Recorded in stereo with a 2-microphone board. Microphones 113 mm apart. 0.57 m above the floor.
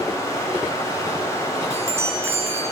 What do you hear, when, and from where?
0.0 s running water: 25° left (ahead or behind), 3 m
1.7 s a chime: 25° right (ahead or behind), 2.5 m